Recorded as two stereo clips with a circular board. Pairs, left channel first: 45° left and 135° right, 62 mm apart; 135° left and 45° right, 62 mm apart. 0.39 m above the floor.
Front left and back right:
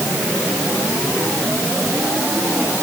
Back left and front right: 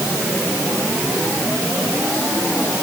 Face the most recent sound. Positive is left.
No sound to turn to.